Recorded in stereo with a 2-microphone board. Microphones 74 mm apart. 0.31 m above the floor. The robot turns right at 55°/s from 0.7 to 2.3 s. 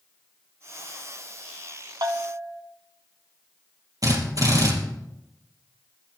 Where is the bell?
75° right (ahead or behind), 0.9 m; by 2.6 s 65° right (ahead or behind), 0.9 m.